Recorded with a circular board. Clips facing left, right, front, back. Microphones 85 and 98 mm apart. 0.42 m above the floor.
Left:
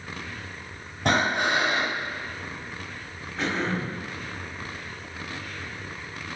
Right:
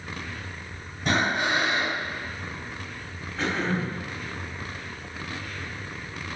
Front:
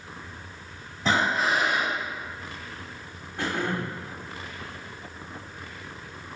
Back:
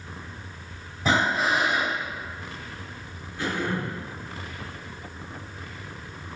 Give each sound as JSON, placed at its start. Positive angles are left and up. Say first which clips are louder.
{"t": 1.1, "sound": "breathing", "louder": "left 1 dB, back 1 dB", "azimuth_deg": 100, "distance_m": 1.0}
{"t": 3.4, "sound": "throat clearing", "louder": "right 1 dB, even", "azimuth_deg": 0, "distance_m": 0.8}